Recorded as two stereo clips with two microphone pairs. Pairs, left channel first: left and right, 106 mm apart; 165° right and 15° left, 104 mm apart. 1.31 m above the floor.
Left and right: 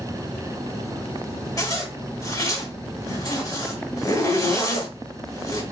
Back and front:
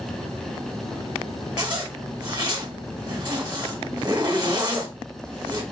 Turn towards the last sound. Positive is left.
turn(degrees=50)